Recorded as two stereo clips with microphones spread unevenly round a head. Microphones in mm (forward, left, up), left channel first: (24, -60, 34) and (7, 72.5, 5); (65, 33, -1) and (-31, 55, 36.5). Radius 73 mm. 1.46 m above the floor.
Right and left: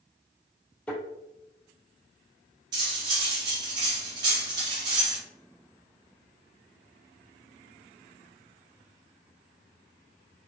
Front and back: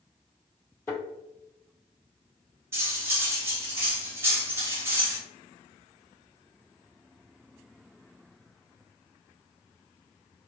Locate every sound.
0.9 s a thud: 95° right, 1.5 m
2.7 s cutlery clinking: 165° left, 0.6 m